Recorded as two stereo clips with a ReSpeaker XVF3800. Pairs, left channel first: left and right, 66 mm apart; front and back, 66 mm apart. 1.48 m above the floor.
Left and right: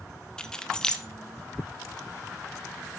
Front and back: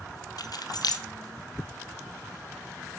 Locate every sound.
0.4 s keys jangling: 10° left, 1.1 m